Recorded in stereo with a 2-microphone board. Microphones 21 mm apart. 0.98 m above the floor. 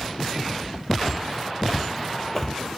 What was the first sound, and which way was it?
Footsteps, 20° right (ahead or behind).